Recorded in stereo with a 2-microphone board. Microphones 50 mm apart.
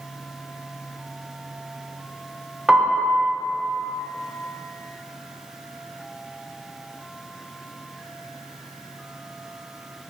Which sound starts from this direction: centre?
A piano, at 2.7 s.